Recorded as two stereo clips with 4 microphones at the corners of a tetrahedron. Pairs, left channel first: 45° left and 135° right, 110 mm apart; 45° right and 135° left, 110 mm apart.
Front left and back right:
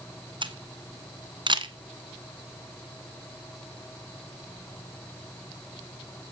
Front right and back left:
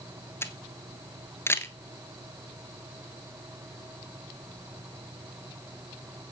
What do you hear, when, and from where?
0.4 s a camera shutter: 110° right, 1.6 m